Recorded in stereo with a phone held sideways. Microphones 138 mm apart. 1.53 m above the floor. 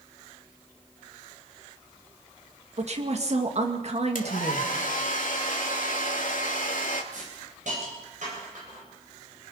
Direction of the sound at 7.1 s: 65° right (ahead or behind).